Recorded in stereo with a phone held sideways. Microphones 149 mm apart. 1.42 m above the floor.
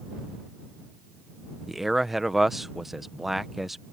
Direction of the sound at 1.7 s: Centre (ahead or behind).